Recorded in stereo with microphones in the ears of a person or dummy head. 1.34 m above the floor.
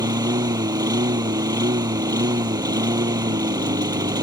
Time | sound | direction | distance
0.0 | a lawn mower | 20° right (ahead or behind) | ?